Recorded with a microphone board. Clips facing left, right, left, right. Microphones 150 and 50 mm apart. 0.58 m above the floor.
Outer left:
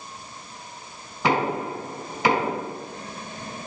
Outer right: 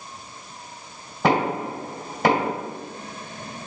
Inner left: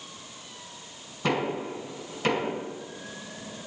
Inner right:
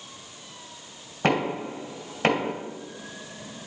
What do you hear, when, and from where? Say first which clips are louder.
1.2 s knocking: outer right 2 dB, inner right 3 dB; 50° right (ahead or behind), 2.5 m